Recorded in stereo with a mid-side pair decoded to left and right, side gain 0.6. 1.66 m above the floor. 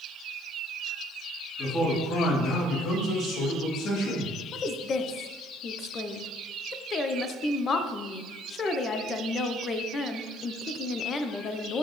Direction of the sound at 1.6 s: 40° left.